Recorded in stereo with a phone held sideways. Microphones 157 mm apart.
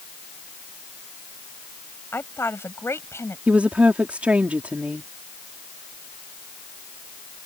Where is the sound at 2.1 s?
15° left (ahead or behind).